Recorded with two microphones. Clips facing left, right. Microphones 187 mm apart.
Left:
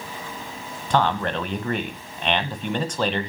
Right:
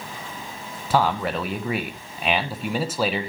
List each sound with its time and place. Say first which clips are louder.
0.9 s a man speaking: even; 5° right (ahead or behind), 1.2 m